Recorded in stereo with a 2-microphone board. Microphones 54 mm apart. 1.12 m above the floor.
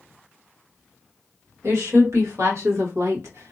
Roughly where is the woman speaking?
Right.